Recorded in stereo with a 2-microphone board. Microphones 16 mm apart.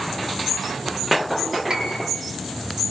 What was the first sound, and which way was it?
A piano, 70° right (ahead or behind).